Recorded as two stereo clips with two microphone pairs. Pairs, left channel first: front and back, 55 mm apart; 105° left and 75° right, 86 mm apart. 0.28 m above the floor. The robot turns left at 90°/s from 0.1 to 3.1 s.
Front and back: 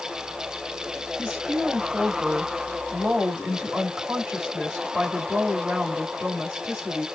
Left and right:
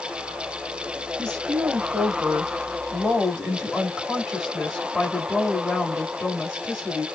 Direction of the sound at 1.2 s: 45° left.